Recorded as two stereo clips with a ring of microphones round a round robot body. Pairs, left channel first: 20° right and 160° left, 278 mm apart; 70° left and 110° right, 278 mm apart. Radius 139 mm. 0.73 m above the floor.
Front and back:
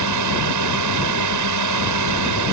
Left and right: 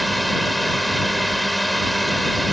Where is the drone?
160° left.